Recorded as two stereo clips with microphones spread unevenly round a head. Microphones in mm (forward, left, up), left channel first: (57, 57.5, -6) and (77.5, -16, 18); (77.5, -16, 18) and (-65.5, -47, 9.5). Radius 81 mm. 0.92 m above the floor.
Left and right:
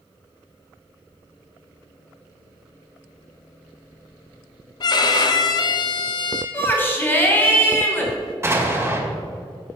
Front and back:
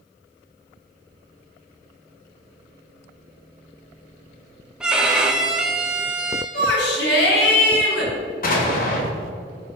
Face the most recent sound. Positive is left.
turn(degrees=-20)